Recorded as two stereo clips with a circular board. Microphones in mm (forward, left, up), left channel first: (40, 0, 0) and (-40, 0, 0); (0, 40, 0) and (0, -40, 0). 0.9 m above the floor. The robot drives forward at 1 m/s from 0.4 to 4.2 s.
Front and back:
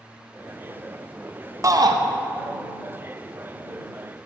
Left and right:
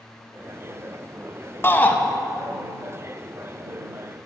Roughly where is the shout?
Behind left.